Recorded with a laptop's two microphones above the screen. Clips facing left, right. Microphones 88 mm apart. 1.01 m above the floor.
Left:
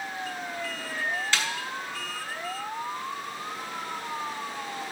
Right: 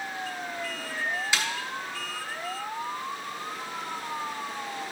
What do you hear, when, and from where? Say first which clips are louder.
1.3 s a snare drum: even; 10° right (ahead or behind), 1.0 m